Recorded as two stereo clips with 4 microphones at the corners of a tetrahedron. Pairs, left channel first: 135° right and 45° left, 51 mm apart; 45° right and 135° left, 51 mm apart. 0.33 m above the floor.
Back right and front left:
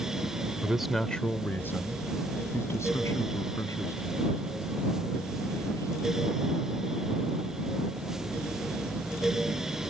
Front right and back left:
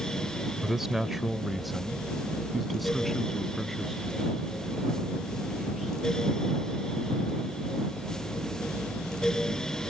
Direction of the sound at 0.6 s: 70° left.